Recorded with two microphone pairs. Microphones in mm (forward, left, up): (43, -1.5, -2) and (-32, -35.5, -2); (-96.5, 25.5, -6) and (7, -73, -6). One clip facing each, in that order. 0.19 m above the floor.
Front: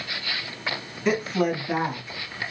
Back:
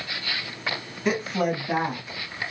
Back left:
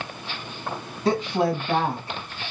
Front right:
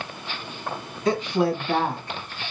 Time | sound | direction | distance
1.1 | a woman speaking | 125° left | 1.3 m